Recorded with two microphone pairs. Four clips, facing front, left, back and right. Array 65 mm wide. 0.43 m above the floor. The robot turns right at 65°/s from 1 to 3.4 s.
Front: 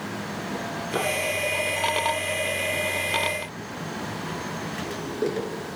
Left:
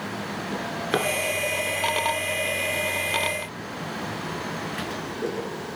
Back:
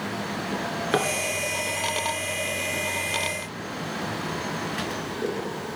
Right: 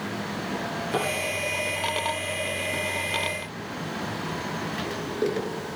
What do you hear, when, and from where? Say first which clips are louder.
0.5 s a drawer: left 2 dB, back 4 dB; 135° left, 1.9 m; by 5.5 s 70° right, 1.9 m